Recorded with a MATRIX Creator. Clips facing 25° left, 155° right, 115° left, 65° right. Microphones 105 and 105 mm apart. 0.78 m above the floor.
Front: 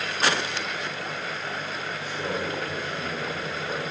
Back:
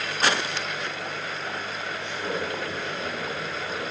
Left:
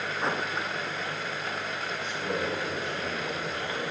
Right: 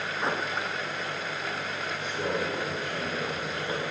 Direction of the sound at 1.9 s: 60° right.